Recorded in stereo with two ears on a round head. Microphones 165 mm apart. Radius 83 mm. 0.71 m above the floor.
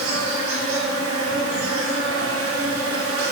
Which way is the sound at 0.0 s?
75° right (ahead or behind).